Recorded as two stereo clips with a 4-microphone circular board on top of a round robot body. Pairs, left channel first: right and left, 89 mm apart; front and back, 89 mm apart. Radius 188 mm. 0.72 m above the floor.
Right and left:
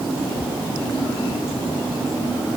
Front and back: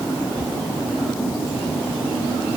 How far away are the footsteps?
No footsteps in this recording.